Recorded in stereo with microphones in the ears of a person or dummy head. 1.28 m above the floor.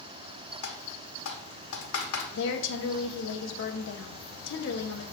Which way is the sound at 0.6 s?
75° left (ahead or behind).